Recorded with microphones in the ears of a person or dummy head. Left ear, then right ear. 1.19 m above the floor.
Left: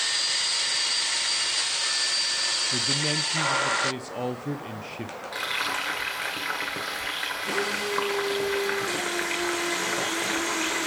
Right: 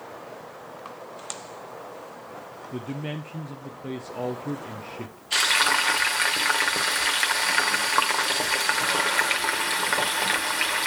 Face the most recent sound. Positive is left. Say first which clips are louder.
# right 8 dB
turn(degrees=-40)  # may be behind; listen again after turning